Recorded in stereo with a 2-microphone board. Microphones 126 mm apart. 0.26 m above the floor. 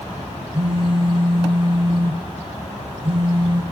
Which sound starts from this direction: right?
A phone buzzing, at 0.5 s.